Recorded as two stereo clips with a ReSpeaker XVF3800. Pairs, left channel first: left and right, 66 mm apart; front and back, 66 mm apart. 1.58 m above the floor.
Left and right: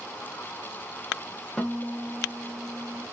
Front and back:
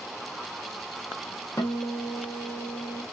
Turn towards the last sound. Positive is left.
turn(degrees=10)